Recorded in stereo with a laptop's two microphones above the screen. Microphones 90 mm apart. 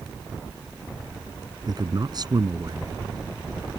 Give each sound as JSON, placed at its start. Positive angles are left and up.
{"t": 1.7, "sound": "a man speaking", "side_deg": -45}